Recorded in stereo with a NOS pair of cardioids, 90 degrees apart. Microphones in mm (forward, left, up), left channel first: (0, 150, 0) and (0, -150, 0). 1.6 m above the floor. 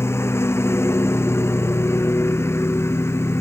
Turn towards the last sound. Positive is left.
turn(degrees=10)